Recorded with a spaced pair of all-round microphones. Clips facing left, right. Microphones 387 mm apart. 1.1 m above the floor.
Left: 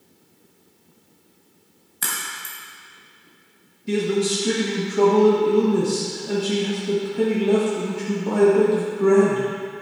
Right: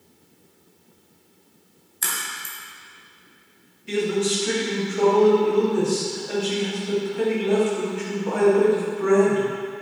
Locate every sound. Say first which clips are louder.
2.0 s a crack: left 1 dB; 70° left (ahead or behind), 2.5 m
3.9 s a man speaking: left 1 dB; 55° left (ahead or behind), 1.7 m